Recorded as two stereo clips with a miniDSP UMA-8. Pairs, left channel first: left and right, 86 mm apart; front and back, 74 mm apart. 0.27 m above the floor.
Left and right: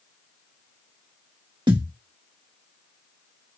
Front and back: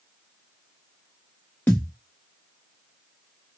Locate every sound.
1.7 s a thud: 65° right, 1.2 m